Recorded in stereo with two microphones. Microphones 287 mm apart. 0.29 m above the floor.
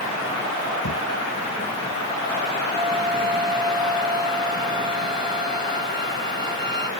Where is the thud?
80° left.